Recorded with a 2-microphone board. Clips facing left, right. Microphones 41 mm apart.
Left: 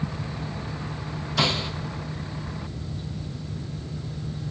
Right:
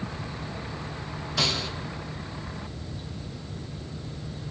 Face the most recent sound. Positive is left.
turn(degrees=20)  # may be behind; listen again after turning